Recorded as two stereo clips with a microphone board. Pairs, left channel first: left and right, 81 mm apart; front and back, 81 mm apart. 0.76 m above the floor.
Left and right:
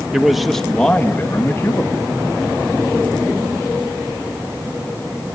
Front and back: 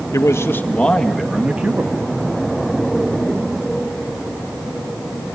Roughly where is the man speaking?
Ahead.